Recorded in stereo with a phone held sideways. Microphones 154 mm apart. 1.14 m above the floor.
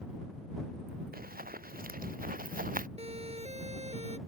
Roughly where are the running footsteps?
Right.